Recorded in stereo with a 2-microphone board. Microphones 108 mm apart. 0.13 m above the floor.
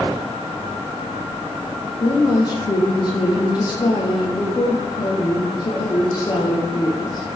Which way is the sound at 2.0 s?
40° left (ahead or behind).